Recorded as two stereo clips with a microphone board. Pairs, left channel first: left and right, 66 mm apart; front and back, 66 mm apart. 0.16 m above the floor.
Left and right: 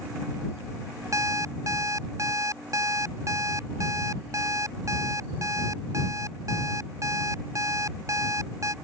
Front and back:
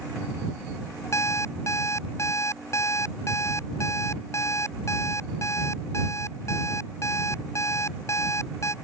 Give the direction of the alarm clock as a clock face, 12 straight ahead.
2 o'clock.